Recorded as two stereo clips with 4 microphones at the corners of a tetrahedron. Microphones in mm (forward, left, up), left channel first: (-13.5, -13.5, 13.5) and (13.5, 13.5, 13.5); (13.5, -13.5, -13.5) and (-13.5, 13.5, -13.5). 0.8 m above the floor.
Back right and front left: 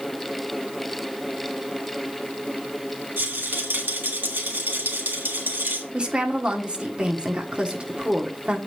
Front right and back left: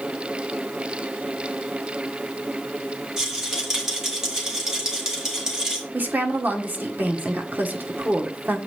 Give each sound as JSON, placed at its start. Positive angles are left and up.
{"t": 3.2, "sound": "a rattle", "azimuth_deg": 60, "distance_m": 2.5}
{"t": 5.9, "sound": "a woman speaking", "azimuth_deg": 105, "distance_m": 1.5}